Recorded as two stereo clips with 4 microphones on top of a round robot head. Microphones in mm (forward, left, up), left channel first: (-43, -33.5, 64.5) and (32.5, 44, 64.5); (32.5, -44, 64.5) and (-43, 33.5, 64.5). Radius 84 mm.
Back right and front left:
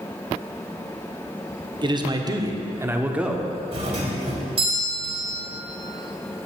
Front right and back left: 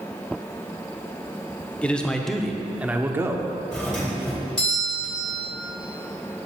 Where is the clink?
No clink in this recording.